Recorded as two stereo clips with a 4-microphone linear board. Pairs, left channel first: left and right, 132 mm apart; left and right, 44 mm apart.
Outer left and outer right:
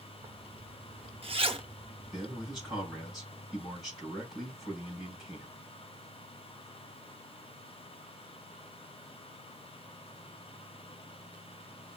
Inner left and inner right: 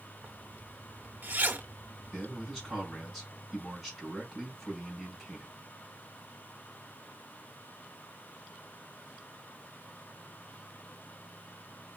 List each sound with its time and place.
0.2 s a zipper: 50° right (ahead or behind), 0.6 m
2.1 s a man speaking: centre (ahead or behind), 4.5 m